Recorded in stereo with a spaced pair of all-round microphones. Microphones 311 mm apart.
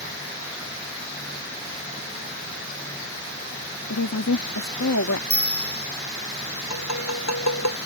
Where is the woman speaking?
65° left (ahead or behind).